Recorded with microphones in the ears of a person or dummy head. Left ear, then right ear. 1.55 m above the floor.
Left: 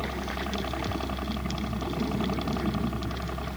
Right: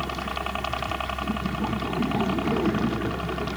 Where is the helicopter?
45° right (ahead or behind); by 3.6 s 40° right (ahead or behind).